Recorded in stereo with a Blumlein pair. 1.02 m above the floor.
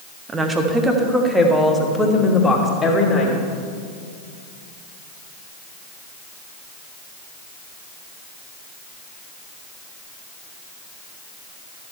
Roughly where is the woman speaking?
Ahead.